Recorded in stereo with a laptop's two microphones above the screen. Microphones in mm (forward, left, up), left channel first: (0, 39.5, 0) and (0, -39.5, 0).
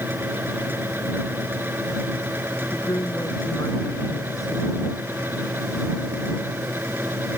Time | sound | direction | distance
0.0 | a fan | 25° right (ahead or behind) | ?
2.7 | a woman speaking | 45° left (ahead or behind) | ?